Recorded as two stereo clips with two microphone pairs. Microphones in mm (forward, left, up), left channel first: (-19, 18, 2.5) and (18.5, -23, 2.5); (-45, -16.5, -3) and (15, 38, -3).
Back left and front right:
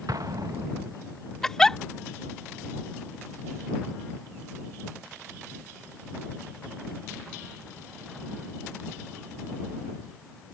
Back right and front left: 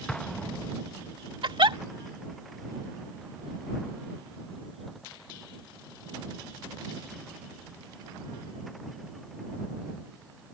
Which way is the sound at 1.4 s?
50° left.